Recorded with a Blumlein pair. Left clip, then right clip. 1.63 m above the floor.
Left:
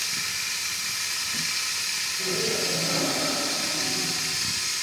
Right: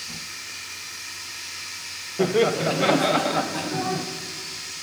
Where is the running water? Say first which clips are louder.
Left 6 dB; 55° left, 2 m.